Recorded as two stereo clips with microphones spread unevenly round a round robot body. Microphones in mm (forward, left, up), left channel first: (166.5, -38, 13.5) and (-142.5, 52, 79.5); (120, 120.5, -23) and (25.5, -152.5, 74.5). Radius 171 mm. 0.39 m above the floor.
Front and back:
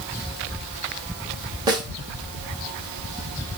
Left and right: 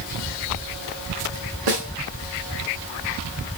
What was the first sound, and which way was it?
A snare drum, 115° right.